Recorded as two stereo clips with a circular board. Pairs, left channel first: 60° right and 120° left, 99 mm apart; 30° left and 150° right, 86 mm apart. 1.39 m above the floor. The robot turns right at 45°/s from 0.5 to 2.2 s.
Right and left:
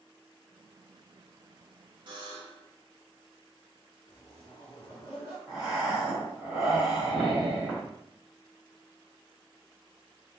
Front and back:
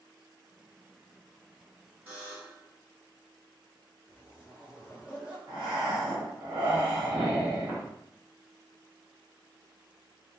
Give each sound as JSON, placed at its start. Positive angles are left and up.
{"t": 2.1, "sound": "a buzzer", "azimuth_deg": 150, "distance_m": 1.0}
{"t": 4.1, "sound": "a zipper", "azimuth_deg": -85, "distance_m": 1.8}
{"t": 5.5, "sound": "breathing", "azimuth_deg": -150, "distance_m": 1.4}